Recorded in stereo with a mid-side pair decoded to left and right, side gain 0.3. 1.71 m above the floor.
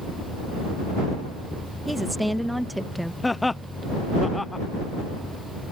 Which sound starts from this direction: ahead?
A woman speaking, at 1.9 s.